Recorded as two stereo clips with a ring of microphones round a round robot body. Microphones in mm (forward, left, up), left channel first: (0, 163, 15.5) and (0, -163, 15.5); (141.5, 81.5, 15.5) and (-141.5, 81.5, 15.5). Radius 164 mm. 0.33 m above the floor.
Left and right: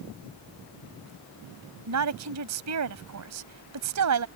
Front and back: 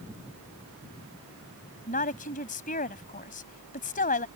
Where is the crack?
No crack in this recording.